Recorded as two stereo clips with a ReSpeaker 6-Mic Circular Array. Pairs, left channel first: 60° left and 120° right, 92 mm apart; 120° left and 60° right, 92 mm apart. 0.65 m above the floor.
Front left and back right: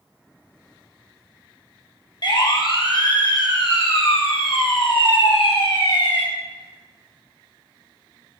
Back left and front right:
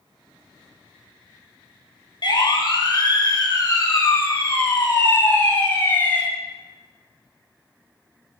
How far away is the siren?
About 4 m.